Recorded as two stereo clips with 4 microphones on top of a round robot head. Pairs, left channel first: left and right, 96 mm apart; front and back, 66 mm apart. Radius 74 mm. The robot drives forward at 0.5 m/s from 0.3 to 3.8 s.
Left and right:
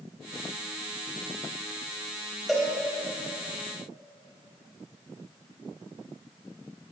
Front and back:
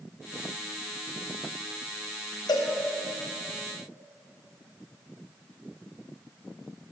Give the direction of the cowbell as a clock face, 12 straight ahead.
12 o'clock.